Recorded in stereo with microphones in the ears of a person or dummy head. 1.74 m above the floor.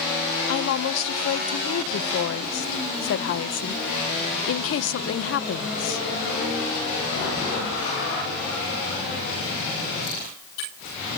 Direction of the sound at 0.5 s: 70° left (ahead or behind).